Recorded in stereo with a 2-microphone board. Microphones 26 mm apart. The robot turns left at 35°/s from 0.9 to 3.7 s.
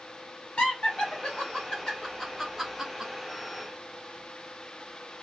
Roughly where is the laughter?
Left.